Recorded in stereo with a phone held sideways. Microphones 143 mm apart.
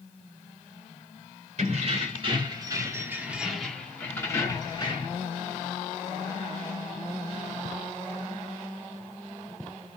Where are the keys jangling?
50° right (ahead or behind), 1.7 m; by 5.2 s 40° left (ahead or behind), 1.7 m.